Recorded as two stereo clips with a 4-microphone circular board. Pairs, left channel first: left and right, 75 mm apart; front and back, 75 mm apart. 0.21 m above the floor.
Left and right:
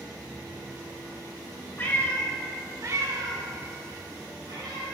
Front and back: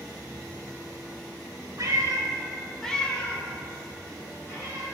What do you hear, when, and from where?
1.8 s a cat meowing: 140° left, 0.9 m; by 4.8 s 60° right, 2.5 m